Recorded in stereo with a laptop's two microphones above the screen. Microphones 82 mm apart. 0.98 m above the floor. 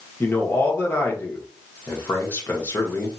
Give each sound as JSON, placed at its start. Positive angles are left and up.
{"t": 0.2, "sound": "a man speaking", "side_deg": 30, "distance_m": 1.1}